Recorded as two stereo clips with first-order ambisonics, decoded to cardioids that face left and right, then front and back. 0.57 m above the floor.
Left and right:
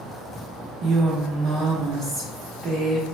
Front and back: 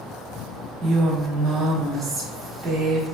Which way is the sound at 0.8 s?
115° right.